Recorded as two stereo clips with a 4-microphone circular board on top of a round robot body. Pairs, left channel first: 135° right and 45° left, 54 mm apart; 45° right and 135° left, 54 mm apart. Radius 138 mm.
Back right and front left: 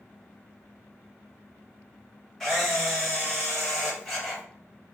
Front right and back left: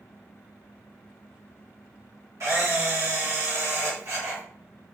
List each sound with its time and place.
2.4 s a camera shutter: 140° left, 2.5 m